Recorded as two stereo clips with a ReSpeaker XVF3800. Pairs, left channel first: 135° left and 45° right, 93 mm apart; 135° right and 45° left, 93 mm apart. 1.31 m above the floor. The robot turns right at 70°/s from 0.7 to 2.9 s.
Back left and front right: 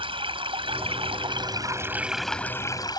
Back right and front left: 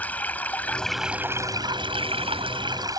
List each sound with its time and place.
0.0 s running water: 60° right; by 3.0 s 90° left